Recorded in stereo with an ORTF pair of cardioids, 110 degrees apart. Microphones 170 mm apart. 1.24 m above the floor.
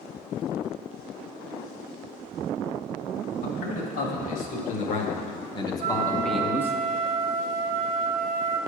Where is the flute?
55° right, 1.0 m.